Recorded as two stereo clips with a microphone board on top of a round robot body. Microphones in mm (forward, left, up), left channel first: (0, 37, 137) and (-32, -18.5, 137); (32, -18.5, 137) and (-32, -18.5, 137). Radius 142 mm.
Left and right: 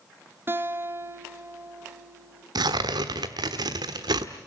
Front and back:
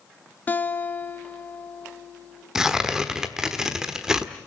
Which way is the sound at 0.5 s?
65° right.